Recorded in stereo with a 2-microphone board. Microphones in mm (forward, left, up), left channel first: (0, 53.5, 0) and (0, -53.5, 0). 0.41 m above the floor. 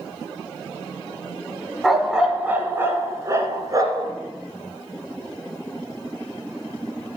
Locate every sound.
1.8 s a dog barking: centre (ahead or behind), 1.3 m; by 4.1 s 40° right (ahead or behind), 2.5 m